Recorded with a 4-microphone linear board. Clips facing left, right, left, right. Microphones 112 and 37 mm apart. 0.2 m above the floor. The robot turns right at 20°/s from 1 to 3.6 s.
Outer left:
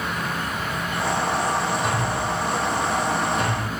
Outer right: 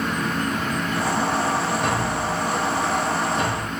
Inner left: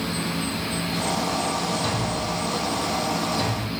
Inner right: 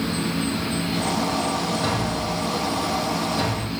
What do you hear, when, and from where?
0.0 s an insect: 45° right, 2.5 m; by 3.8 s 10° left, 2.5 m
1.8 s a thud: 60° right (ahead or behind), 7.5 m; by 3.7 s 25° right (ahead or behind), 7.5 m